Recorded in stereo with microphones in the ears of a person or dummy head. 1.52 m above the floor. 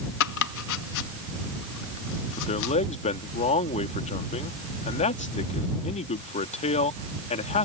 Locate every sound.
0.2 s chopping: 70° left (ahead or behind)
2.4 s a man speaking: 35° left (ahead or behind)